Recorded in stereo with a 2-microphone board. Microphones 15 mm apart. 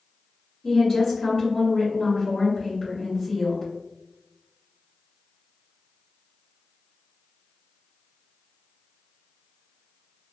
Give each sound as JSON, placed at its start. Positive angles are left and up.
{"t": 0.6, "sound": "a woman speaking", "side_deg": 40, "distance_m": 1.6}